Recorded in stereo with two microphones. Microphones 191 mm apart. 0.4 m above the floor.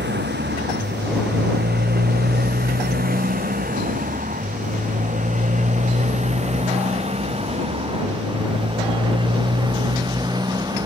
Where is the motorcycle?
65° right (ahead or behind); by 10.9 s 20° right (ahead or behind).